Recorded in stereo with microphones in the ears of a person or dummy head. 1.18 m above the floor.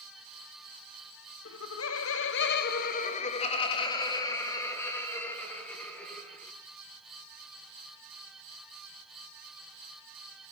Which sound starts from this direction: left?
Laughter, at 1.4 s.